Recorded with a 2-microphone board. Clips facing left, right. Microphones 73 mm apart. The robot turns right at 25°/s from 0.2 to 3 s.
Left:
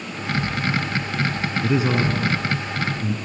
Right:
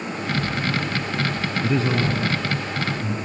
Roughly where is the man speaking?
Ahead.